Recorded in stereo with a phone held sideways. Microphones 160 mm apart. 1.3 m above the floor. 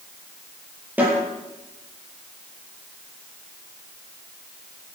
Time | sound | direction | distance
1.0 | a snare drum | 10° right (ahead or behind) | 8.5 m